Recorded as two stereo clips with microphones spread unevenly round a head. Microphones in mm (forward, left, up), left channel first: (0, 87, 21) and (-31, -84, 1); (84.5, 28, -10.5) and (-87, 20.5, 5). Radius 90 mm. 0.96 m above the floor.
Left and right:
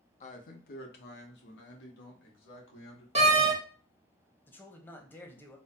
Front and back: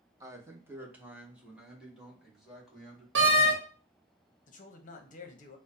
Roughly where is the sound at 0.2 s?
Behind left.